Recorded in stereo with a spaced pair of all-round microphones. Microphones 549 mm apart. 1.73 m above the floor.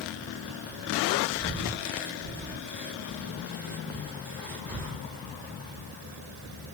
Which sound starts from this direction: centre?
Breathing, at 1.4 s.